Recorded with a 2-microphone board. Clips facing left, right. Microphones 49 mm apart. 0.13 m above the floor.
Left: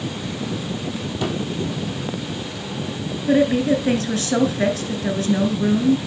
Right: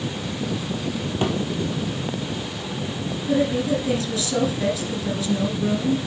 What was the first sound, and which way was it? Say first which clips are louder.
A thud: right 1 dB; 35° right (ahead or behind).